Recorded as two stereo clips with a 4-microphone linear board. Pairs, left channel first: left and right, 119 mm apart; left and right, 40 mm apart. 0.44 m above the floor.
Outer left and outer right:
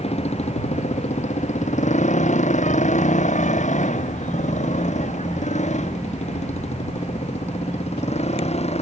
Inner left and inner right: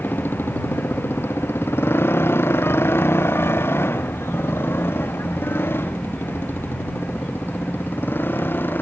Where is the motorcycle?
60° left (ahead or behind).